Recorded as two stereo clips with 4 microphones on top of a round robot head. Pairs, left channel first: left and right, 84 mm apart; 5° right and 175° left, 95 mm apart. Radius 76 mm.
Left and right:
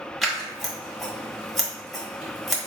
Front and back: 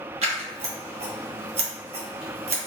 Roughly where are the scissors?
Behind.